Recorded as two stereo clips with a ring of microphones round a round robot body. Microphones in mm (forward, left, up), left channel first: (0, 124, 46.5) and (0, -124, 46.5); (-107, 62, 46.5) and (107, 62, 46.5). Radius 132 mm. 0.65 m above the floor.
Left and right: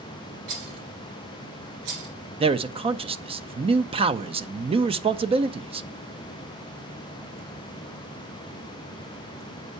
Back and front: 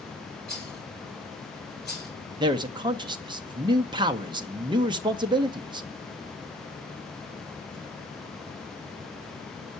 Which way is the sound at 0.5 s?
90° right.